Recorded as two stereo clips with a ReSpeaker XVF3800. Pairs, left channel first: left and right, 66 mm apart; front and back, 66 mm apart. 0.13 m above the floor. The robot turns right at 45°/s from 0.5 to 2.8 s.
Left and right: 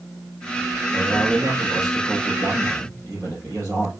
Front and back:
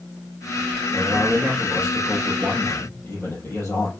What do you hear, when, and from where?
0.9 s a man speaking: 140° right, 4.5 m; by 3.9 s 55° right, 4.5 m